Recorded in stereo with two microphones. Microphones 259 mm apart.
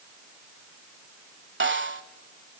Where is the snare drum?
45° right (ahead or behind), 1.0 m.